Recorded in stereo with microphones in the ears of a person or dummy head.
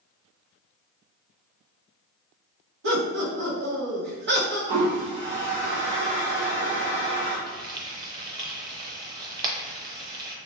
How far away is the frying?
About 0.6 m.